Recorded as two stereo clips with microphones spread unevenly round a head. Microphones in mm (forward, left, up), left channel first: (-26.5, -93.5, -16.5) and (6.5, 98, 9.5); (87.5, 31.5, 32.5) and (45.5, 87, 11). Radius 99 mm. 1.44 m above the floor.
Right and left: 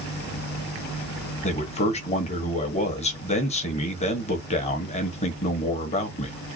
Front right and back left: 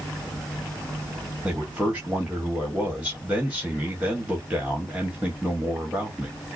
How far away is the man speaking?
About 1.3 m.